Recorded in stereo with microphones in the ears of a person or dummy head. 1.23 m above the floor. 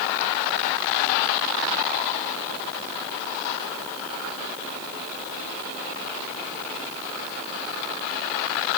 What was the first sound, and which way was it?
Only background noise.